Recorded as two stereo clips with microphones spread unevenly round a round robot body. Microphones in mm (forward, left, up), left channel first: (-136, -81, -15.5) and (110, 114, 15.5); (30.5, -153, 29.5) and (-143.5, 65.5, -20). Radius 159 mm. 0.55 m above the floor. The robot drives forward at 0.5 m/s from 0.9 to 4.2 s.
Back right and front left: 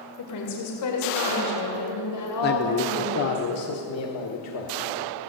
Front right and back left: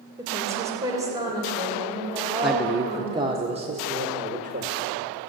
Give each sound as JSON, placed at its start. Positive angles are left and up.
{"t": 0.2, "sound": "a woman speaking", "azimuth_deg": -160, "distance_m": 2.5}
{"t": 2.4, "sound": "a man speaking", "azimuth_deg": -160, "distance_m": 0.7}